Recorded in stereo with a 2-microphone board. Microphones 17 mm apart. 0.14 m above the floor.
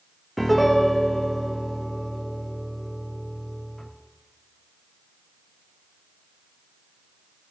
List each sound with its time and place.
0.4 s a piano: 15° left (ahead or behind), 1.9 m